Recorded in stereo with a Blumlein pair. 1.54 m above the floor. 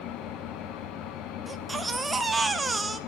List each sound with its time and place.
0.0 s an engine running: 35° left, 1.2 m
1.5 s a baby crying: 10° right, 0.9 m